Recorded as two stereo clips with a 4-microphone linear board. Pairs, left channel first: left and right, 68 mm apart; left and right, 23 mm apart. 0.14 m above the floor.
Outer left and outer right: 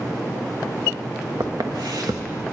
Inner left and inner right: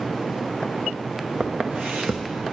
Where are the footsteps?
70° right (ahead or behind), 1.0 m.